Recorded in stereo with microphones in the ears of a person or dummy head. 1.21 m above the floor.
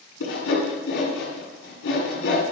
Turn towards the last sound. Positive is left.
turn(degrees=80)